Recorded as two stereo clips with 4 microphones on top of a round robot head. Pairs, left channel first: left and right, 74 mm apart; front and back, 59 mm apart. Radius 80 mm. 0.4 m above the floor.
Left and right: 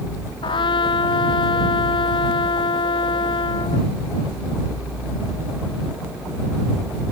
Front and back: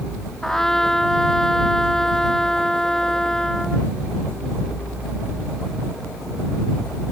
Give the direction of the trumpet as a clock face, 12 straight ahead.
9 o'clock.